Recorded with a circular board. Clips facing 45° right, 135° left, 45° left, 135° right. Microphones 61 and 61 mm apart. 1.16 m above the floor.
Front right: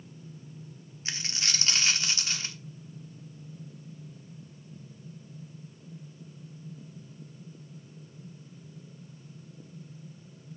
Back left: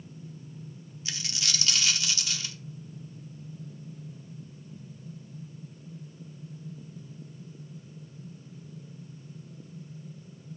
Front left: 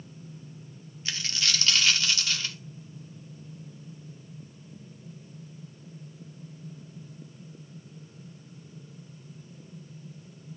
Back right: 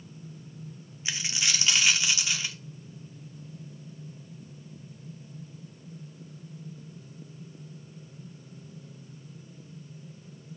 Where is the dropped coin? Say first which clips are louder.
Front right 1 dB, even; 70° right, 0.8 m.